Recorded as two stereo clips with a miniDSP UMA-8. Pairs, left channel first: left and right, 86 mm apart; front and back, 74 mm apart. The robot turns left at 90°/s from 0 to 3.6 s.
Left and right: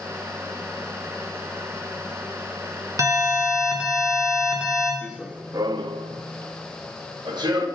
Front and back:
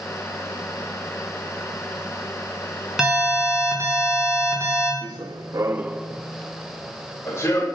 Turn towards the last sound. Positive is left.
turn(degrees=-55)